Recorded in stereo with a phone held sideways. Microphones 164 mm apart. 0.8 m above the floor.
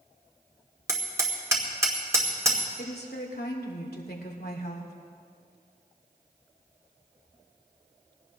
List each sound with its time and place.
0.9 s hammering: 20° right (ahead or behind), 2 m
2.8 s a woman speaking: 75° left (ahead or behind), 2 m